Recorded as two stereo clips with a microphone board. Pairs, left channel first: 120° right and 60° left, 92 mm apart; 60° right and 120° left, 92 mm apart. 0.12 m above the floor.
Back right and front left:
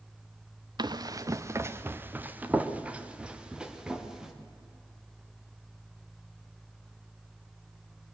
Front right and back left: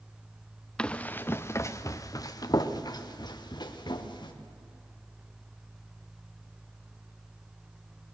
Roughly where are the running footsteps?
Ahead.